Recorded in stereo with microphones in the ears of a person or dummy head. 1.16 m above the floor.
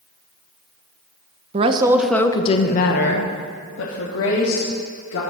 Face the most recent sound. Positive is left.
turn(degrees=75)  # may be behind; listen again after turning